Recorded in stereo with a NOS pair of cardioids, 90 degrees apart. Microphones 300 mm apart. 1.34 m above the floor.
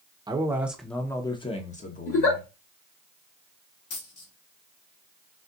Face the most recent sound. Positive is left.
turn(degrees=55)